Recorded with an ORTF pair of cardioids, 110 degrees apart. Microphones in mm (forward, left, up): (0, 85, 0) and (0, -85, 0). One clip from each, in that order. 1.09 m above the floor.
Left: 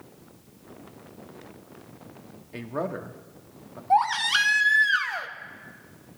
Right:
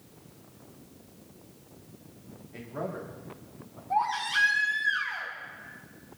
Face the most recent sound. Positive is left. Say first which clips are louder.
# left 6 dB
turn(degrees=70)